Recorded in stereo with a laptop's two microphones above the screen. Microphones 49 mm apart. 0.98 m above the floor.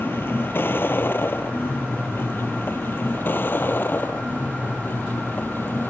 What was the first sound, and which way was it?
A vehicle, 50° left (ahead or behind).